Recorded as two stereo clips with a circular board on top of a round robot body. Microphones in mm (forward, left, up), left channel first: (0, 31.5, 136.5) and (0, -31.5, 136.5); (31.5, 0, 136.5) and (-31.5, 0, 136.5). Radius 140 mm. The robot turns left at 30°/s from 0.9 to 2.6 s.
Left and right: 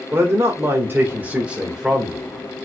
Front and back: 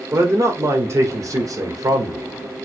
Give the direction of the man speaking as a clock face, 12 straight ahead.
5 o'clock.